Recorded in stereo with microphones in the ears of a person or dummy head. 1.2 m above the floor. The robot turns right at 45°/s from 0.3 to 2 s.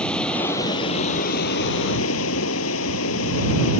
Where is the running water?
10° left; by 3.8 s 85° left.